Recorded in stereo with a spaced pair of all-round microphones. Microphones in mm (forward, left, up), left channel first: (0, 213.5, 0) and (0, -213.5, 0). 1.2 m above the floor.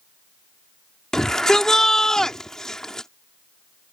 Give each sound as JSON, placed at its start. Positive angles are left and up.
{"t": 1.1, "sound": "a shout", "side_deg": 0}